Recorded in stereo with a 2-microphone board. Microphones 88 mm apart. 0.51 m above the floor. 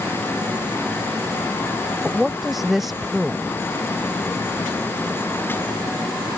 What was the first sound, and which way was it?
A woman speaking, centre (ahead or behind).